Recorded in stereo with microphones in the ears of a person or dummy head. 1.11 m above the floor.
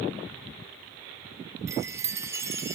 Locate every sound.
1.7 s a chime: 10° right (ahead or behind), 0.6 m